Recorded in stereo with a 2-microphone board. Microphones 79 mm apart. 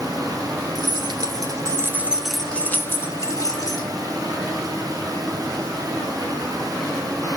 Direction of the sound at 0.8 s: 65° right (ahead or behind).